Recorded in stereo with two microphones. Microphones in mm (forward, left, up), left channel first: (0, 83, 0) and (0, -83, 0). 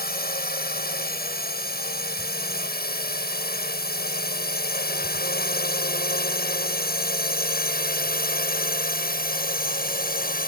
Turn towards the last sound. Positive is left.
turn(degrees=60)  # may be behind; listen again after turning